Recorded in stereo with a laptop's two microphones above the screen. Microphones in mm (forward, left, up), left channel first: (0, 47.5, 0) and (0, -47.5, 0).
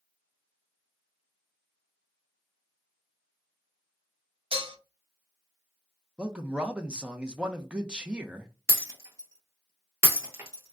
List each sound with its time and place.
4.5 s dishes clattering: 75° right (ahead or behind), 0.5 m
6.2 s a man speaking: 10° right (ahead or behind), 0.7 m
8.7 s breaking glass: 30° right (ahead or behind), 1.1 m